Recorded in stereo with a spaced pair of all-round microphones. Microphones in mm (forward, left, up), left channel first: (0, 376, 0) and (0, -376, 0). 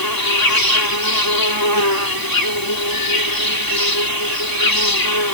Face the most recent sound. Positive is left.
turn(degrees=25)  # may be behind; listen again after turning